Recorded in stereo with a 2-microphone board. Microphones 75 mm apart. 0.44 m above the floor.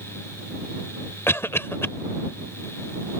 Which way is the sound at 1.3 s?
35° left (ahead or behind).